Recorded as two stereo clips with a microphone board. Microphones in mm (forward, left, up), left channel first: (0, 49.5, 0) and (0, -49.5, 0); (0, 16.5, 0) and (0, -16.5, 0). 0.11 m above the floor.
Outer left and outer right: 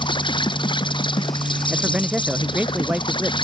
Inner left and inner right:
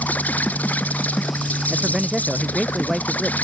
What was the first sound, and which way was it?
An insect, 55° left (ahead or behind).